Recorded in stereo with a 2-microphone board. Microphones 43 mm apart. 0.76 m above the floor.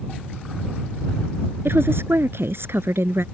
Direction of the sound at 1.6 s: 70° right (ahead or behind).